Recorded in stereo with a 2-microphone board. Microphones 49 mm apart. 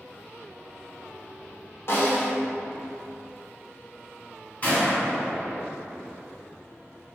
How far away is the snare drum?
About 1.0 m.